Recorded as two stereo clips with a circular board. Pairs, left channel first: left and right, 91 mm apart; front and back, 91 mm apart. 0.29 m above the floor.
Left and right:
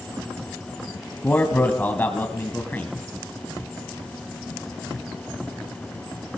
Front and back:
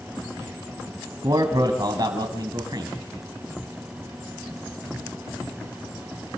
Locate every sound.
1.2 s a man speaking: 155° left, 2 m